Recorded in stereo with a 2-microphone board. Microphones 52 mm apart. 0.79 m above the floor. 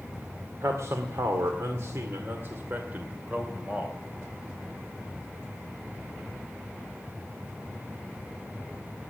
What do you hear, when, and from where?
0.6 s a man speaking: 70° right (ahead or behind), 2 m; by 4.0 s 25° right (ahead or behind), 3 m